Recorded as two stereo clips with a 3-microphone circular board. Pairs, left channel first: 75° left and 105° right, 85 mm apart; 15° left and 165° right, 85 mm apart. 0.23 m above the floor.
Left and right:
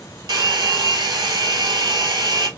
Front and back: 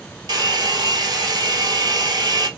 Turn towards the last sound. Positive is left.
turn(degrees=-135)